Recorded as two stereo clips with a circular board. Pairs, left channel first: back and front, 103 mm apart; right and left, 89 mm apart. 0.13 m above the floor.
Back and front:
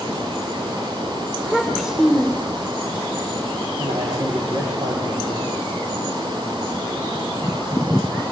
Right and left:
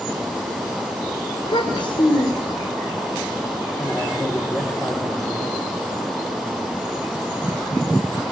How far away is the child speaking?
About 5 m.